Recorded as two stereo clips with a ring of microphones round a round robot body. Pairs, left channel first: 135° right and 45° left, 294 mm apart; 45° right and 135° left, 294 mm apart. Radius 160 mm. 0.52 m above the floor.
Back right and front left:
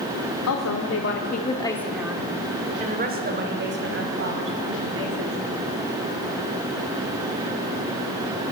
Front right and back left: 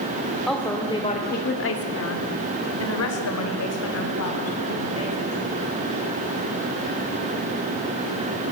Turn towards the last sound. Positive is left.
turn(degrees=0)